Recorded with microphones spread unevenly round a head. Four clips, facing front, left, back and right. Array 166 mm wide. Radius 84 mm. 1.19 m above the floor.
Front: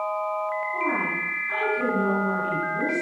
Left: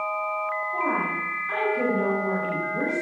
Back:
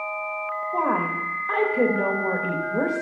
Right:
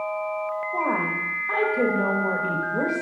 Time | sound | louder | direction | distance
0.7 | a woman speaking | right 2 dB, back 3 dB | 155° right | 1.8 m